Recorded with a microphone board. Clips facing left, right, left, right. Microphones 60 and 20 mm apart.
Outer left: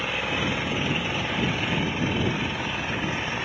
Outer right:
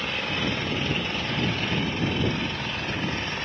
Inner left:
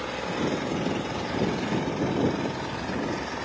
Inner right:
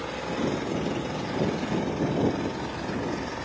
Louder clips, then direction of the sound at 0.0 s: Outer left 1 dB, inner left 1 dB; 10° left (ahead or behind).